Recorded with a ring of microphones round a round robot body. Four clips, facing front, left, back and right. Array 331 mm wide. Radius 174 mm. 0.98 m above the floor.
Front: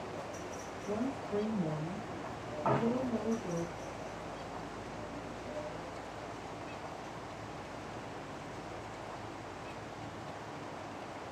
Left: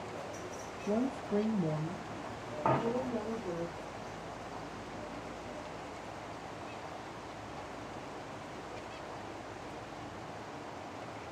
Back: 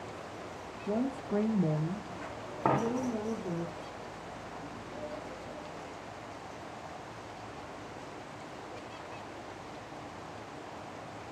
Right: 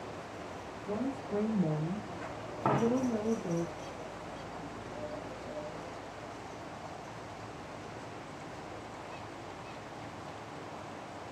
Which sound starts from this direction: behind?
A dropped coin, at 2.6 s.